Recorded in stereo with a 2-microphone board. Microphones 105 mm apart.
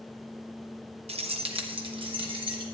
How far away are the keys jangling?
About 0.6 m.